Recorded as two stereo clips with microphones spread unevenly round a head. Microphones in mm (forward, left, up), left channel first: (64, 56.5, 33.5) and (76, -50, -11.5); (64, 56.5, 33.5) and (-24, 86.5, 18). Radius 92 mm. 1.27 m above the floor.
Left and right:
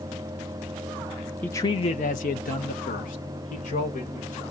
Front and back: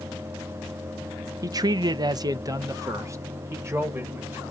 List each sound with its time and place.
1.4 s a man speaking: 165° right, 0.7 m; by 4.4 s 100° left, 3 m